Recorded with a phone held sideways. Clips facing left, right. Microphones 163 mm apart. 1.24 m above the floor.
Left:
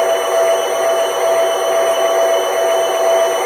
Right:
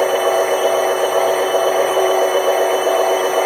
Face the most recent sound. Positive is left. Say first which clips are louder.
# left 1 dB
turn(degrees=-35)  # may be behind; listen again after turning